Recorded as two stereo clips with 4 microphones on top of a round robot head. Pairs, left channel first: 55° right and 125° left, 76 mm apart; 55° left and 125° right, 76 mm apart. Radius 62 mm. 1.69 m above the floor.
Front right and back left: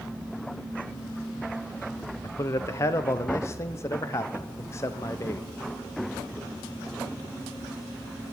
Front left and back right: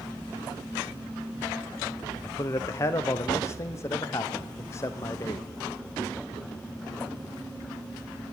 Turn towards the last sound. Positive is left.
turn(degrees=0)